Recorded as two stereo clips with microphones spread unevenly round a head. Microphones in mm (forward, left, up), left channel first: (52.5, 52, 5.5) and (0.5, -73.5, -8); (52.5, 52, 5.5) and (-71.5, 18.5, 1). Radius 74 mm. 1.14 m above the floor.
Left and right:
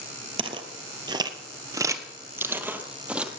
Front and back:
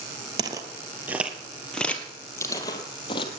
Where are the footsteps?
135° right, 1.3 m; by 3.3 s 30° right, 1.7 m.